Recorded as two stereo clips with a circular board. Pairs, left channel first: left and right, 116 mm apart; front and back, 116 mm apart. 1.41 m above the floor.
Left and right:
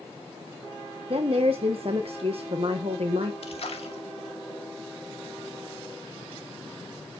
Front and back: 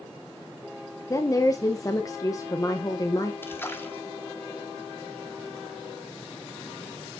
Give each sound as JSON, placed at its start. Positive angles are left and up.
{"t": 1.1, "sound": "a woman speaking", "azimuth_deg": -60, "distance_m": 1.0}
{"t": 3.4, "sound": "a splash", "azimuth_deg": 70, "distance_m": 1.8}